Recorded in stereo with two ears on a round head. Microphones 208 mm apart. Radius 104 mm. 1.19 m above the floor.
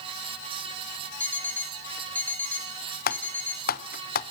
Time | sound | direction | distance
1.2 | an alarm clock | 10° left (ahead or behind) | 1.8 m
3.1 | typing on a keyboard | 45° left (ahead or behind) | 1.1 m